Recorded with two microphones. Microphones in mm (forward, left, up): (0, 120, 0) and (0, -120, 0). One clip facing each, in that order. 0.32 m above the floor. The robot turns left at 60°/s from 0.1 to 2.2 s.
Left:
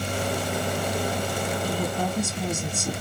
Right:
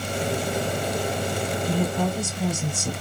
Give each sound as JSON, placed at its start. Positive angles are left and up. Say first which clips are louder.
{"t": 1.6, "sound": "a woman speaking", "louder": "right 6 dB", "azimuth_deg": -75, "distance_m": 1.8}